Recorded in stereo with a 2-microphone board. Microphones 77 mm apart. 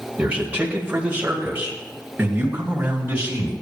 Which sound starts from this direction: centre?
A man speaking, at 0.2 s.